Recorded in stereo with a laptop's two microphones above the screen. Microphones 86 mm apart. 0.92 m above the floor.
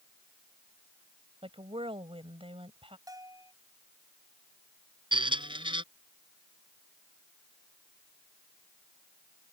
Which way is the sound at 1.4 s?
80° right.